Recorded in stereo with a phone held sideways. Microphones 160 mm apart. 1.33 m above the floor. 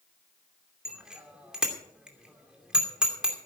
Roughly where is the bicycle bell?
Centre.